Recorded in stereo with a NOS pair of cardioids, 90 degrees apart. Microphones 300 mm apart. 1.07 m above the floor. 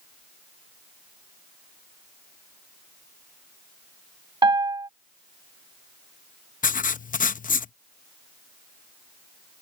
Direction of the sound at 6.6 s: 25° left.